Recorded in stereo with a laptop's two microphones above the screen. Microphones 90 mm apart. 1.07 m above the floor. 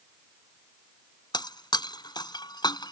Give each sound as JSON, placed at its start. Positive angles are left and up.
{"t": 1.3, "sound": "breaking glass", "side_deg": 55}